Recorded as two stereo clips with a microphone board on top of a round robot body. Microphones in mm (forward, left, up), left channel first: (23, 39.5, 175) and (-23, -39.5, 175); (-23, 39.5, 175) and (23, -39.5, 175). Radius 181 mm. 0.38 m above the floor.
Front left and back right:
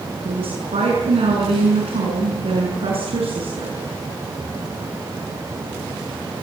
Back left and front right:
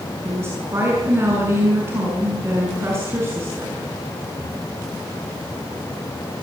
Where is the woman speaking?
125° right, 7 m.